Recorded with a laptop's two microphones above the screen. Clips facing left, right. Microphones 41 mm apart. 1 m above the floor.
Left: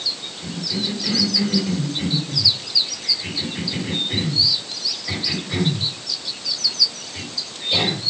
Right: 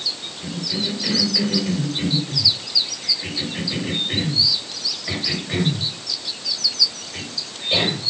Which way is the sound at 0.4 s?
35° right (ahead or behind).